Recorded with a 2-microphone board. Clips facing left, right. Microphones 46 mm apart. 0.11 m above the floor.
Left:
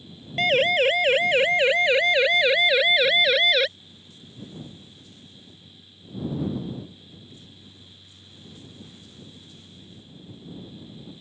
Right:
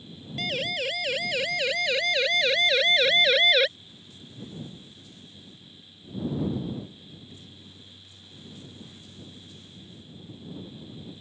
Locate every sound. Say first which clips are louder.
0.4 s a siren: left 10 dB; 45° left (ahead or behind); by 3.7 s centre (ahead or behind)